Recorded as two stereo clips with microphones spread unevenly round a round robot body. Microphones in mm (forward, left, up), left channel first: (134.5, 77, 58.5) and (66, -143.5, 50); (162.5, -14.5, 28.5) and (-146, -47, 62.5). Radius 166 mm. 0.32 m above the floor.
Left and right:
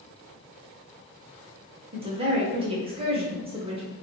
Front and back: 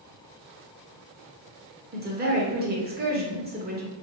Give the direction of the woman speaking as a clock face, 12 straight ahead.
5 o'clock.